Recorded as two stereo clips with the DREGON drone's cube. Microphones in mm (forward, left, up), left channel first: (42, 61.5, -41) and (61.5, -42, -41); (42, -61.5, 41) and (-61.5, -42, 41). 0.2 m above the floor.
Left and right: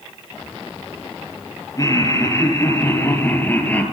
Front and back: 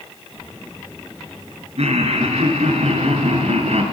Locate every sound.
1.8 s laughter: 160° left, 4.5 m; by 3.8 s 175° left, 4 m